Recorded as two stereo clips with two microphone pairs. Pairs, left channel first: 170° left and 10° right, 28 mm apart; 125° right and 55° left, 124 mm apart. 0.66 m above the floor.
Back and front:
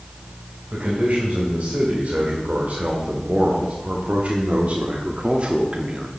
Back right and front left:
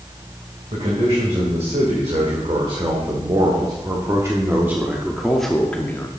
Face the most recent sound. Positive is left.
turn(degrees=-65)